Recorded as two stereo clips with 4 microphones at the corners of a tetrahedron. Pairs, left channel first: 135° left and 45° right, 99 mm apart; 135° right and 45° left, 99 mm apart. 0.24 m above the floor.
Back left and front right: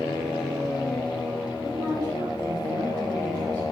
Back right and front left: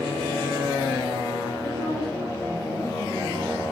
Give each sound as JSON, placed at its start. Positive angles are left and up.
{"t": 1.6, "sound": "a woman speaking", "azimuth_deg": 0, "distance_m": 4.5}